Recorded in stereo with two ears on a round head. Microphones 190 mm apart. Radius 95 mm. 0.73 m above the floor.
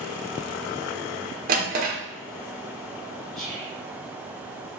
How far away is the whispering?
About 2 m.